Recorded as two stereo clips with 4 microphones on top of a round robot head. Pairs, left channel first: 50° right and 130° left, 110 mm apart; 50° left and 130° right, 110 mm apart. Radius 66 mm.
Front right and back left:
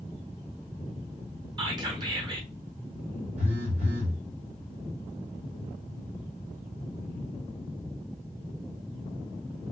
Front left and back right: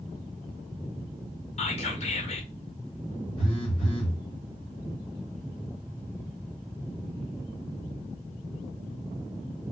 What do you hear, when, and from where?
1.6 s whispering: 80° left, 1.5 m
3.4 s a phone buzzing: 100° left, 2.5 m